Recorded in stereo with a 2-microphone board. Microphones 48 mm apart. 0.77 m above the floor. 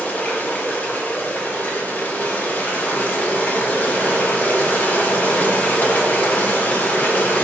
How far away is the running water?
About 0.8 m.